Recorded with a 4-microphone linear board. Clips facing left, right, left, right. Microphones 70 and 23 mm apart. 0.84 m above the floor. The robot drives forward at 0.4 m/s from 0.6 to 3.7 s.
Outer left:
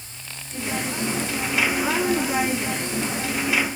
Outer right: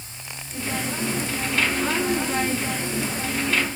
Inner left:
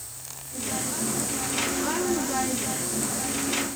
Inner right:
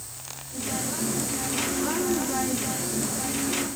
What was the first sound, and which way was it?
Only background noise.